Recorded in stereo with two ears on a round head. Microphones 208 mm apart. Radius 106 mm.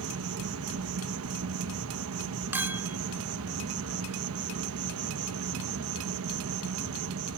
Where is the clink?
10° right (ahead or behind).